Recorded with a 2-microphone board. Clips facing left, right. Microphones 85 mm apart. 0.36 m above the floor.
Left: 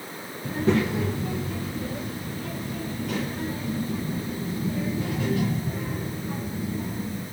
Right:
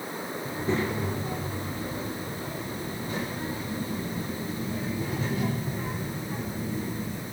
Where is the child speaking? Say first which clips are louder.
Left 6 dB; 75° left (ahead or behind), 4 m; by 7.2 s 70° left (ahead or behind), 11 m.